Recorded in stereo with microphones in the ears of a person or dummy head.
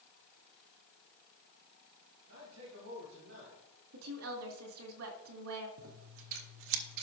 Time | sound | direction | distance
2.3 | a man speaking | 70° right (ahead or behind) | 4 m
3.9 | a woman speaking | 75° right (ahead or behind) | 2 m
5.8 | scissors | 60° right (ahead or behind) | 0.8 m